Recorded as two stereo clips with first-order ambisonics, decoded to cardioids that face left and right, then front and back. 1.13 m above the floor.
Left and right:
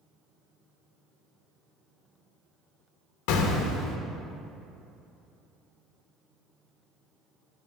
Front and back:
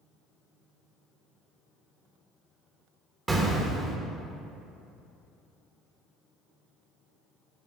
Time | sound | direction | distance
3.3 | an explosion | 105° left | 0.8 m